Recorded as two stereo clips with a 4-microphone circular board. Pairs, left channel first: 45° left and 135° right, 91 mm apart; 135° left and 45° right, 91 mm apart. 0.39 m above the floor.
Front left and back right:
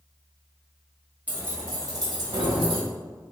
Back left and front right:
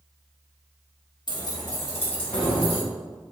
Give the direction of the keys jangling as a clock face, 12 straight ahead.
7 o'clock.